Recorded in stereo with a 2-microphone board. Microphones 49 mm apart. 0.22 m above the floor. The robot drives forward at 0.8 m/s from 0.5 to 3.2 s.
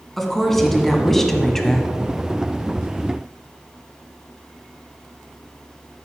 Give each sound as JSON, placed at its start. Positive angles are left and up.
{"t": 0.2, "sound": "a woman speaking", "side_deg": 5, "distance_m": 1.8}